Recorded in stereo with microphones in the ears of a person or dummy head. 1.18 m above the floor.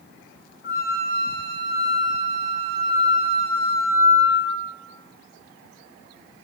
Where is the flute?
50° left (ahead or behind), 1.9 m.